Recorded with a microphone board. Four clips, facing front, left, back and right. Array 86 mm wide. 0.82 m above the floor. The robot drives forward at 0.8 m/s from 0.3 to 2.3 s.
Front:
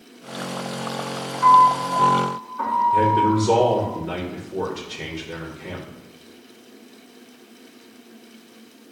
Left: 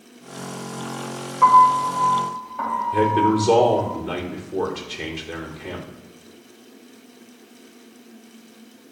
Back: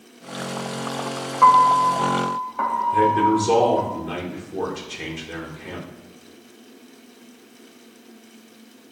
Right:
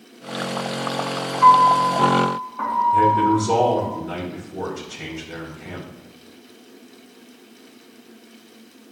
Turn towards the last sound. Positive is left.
turn(degrees=100)